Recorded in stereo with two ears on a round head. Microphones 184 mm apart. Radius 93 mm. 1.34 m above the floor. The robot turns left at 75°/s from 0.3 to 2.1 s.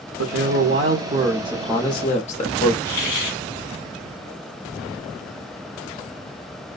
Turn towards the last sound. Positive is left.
turn(degrees=35)  # may be behind; listen again after turning